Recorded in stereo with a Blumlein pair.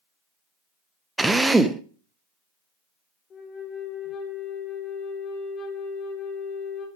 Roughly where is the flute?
Ahead left.